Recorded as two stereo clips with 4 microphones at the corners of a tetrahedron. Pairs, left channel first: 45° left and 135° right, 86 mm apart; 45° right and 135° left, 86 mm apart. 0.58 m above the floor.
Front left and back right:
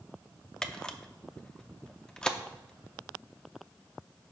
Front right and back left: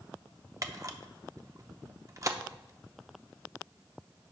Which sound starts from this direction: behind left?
A camera shutter, at 0.6 s.